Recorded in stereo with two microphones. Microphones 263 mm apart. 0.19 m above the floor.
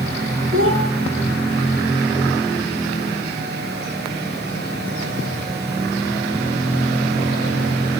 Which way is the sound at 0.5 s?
50° right (ahead or behind).